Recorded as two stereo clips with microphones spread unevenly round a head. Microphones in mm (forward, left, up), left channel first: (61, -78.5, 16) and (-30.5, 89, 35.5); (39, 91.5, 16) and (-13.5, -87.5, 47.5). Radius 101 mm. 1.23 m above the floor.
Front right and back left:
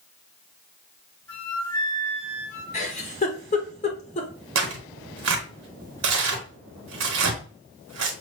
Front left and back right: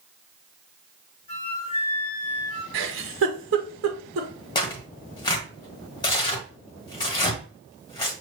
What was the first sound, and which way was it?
A flute, 10° left.